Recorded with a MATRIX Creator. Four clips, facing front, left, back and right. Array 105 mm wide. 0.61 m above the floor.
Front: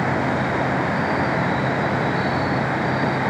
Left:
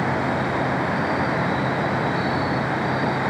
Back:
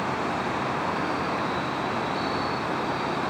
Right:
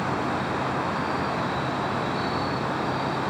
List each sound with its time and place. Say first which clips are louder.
0.0 s an insect: left 4 dB, front 6 dB; 35° left